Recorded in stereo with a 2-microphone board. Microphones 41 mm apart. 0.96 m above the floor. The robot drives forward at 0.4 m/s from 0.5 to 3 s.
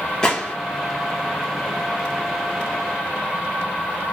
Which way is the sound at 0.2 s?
15° left (ahead or behind).